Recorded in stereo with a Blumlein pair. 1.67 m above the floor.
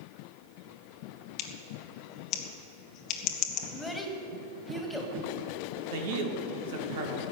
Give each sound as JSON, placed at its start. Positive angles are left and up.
{"t": 1.4, "sound": "scissors", "azimuth_deg": 35, "distance_m": 1.3}
{"t": 3.7, "sound": "a child speaking", "azimuth_deg": 5, "distance_m": 2.5}
{"t": 5.9, "sound": "a man speaking", "azimuth_deg": -55, "distance_m": 2.0}